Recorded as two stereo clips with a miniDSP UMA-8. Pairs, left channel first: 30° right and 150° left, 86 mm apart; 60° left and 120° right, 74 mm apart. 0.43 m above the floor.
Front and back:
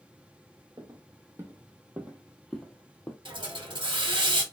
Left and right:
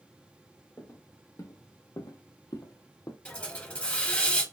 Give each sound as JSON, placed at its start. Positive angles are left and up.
{"t": 0.8, "sound": "footsteps", "azimuth_deg": 110, "distance_m": 1.2}
{"t": 3.2, "sound": "a hiss", "azimuth_deg": 135, "distance_m": 1.0}